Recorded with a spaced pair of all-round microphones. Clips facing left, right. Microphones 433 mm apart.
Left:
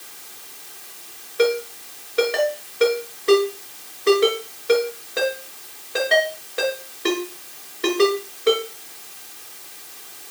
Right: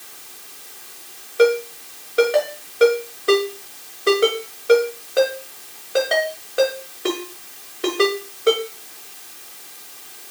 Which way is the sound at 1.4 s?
5° left (ahead or behind).